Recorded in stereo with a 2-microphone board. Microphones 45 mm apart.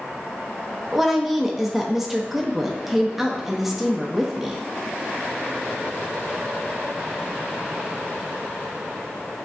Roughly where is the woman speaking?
Centre.